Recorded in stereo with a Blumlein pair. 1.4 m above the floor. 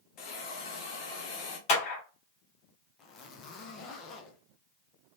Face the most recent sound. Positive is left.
turn(degrees=30)